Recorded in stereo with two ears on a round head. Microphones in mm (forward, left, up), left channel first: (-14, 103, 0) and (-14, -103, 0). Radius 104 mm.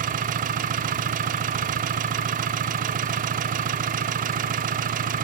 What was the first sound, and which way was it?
An engine running, 35° right (ahead or behind).